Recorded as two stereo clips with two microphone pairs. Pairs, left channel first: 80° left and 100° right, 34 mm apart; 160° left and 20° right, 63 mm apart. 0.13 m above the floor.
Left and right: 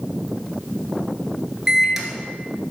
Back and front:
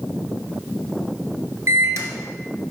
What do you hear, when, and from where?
1.7 s a microwave: 25° right, 1.3 m